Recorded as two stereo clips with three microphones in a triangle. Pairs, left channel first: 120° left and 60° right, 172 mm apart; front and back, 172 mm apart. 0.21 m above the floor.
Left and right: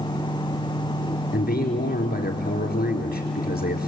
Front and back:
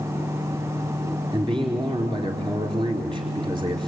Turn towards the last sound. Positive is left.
turn(degrees=120)